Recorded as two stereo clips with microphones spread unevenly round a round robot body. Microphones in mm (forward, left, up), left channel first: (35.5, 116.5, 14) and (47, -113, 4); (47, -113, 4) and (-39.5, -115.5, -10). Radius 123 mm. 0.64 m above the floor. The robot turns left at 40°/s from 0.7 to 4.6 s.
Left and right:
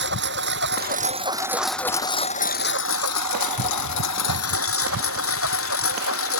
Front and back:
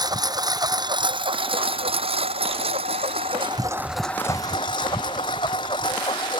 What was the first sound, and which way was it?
A lawn mower, 140° right.